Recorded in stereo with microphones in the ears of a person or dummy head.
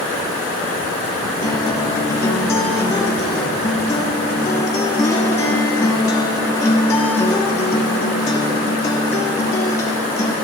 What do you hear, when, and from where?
1.4 s a guitar: 15° left (ahead or behind), 1.3 m